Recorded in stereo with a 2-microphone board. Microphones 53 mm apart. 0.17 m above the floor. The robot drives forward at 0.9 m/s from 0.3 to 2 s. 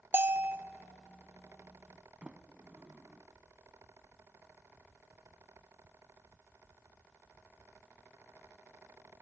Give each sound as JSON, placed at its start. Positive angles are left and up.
{"t": 0.1, "sound": "a bell", "side_deg": -45, "distance_m": 0.6}
{"t": 2.2, "sound": "a sliding door", "side_deg": -20, "distance_m": 0.6}